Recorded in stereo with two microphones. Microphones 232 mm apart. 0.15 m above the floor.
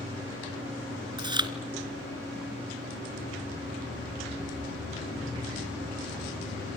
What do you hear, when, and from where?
1.2 s chewing: 20° right (ahead or behind), 1.3 m